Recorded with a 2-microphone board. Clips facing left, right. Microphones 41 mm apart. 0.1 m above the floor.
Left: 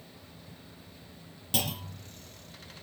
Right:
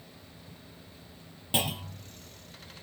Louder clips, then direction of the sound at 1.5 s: Right 3 dB; 25° right (ahead or behind).